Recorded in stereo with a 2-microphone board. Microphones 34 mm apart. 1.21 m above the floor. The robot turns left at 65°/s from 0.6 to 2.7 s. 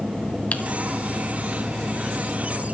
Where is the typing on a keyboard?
45° left (ahead or behind), 1.7 m.